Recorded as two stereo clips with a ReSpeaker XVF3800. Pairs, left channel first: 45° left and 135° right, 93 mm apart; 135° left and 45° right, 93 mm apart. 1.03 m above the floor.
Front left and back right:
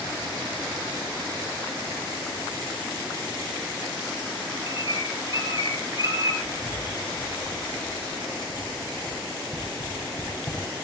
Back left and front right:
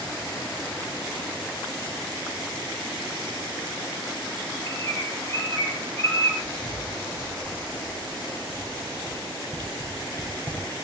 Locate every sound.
4.7 s a bird: 75° left, 7 m
6.4 s writing: 85° left, 6.5 m